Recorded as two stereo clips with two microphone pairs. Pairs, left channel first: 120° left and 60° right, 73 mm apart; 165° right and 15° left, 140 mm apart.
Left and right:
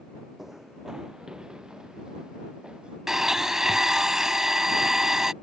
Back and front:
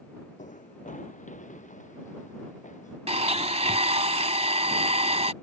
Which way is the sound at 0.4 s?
150° right.